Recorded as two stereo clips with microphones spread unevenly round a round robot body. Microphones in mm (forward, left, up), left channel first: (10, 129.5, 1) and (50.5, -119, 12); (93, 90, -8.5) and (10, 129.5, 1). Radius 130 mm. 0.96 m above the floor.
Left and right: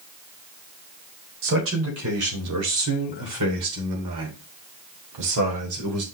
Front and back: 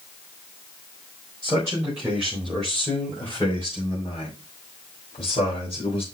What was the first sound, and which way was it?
A man speaking, 125° right.